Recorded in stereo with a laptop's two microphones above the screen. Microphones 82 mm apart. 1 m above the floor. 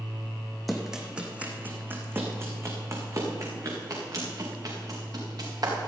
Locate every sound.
0.7 s running footsteps: centre (ahead or behind), 2 m; by 5.9 s 50° right (ahead or behind), 6 m